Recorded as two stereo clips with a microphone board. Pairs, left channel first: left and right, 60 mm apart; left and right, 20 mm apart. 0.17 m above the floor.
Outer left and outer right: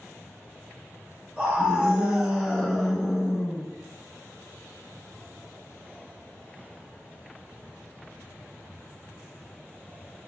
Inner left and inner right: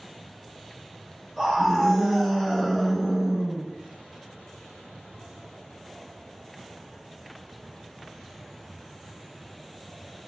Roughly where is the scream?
Right.